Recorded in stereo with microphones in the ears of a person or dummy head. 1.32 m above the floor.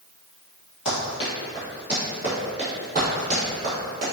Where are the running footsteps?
35° left (ahead or behind), 1.6 m; by 4.1 s 30° right (ahead or behind), 1.5 m.